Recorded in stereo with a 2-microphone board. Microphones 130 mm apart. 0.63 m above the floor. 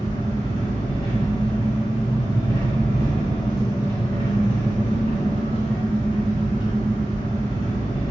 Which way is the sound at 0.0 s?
45° left (ahead or behind).